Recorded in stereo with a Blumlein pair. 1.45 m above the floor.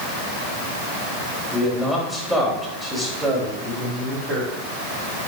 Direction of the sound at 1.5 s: 10° left.